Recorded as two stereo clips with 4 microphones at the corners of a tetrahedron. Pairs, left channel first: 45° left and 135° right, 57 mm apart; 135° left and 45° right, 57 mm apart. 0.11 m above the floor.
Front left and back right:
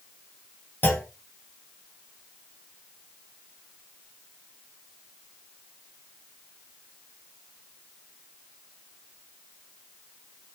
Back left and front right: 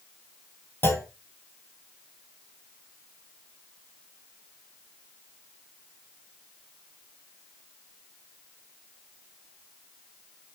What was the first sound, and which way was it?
A clunk, 95° left.